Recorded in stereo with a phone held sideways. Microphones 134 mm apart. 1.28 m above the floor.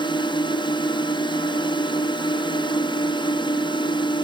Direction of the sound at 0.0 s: 35° left (ahead or behind).